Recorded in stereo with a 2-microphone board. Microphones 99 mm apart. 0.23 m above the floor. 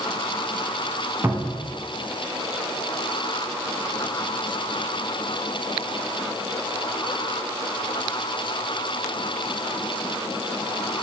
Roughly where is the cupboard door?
Right.